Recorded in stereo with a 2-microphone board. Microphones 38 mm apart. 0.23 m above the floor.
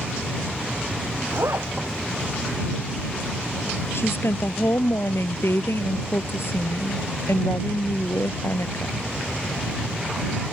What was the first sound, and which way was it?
A zipper, 85° right.